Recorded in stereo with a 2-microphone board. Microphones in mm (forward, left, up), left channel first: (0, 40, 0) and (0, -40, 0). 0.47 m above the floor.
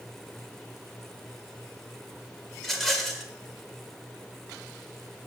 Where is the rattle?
5° left (ahead or behind), 1.5 m.